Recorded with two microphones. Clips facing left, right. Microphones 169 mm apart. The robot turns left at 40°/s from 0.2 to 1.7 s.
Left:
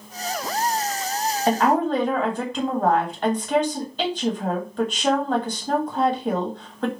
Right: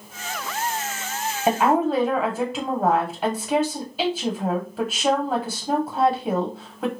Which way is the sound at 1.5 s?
15° right (ahead or behind).